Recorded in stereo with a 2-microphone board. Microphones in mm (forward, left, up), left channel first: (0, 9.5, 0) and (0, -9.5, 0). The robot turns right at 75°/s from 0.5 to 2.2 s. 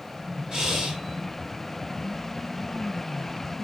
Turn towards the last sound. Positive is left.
turn(degrees=-20)